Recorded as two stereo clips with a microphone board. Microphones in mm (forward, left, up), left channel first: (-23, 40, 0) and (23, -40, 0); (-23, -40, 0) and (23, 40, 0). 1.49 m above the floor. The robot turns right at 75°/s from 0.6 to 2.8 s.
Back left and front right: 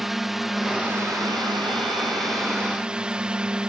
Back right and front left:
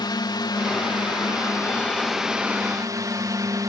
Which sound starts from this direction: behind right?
A drone, at 0.0 s.